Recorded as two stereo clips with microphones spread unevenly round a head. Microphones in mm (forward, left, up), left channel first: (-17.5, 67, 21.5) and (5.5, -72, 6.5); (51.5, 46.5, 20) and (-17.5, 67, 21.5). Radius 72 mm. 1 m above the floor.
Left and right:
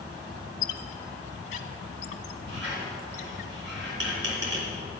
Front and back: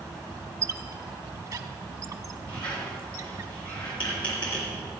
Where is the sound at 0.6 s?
130° left, 0.9 m.